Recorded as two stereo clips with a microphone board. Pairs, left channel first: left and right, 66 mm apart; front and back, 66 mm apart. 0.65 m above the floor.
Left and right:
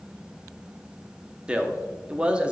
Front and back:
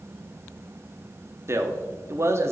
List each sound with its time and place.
1.5 s a man speaking: 160° right, 0.9 m